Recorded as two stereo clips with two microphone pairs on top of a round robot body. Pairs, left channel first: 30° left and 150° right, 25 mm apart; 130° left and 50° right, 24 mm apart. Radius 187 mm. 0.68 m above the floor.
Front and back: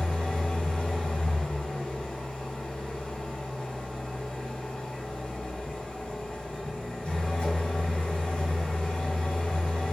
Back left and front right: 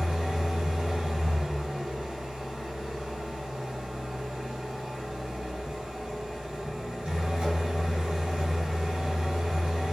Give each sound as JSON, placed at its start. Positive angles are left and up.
{"t": 0.0, "sound": "an engine running", "azimuth_deg": -5, "distance_m": 2.0}